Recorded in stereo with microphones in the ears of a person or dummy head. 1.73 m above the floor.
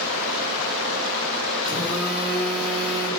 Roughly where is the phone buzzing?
Centre.